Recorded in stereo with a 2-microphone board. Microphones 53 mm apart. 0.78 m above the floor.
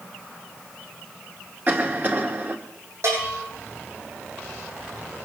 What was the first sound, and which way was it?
A cough, 40° right (ahead or behind).